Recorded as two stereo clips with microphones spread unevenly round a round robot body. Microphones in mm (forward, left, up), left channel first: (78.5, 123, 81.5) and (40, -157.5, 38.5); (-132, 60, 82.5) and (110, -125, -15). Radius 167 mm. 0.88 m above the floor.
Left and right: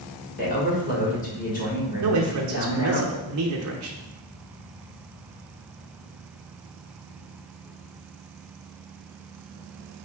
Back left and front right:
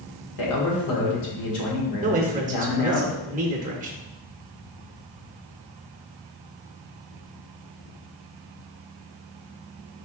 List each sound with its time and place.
0.4 s a man speaking: 145° left, 1.4 m
2.0 s a man speaking: 95° right, 0.7 m